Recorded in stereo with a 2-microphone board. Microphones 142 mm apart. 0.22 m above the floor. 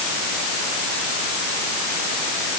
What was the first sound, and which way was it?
Only background noise.